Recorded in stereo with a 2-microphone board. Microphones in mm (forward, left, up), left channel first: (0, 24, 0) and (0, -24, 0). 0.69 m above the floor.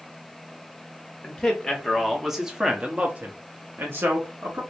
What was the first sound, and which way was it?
A man speaking, 10° left (ahead or behind).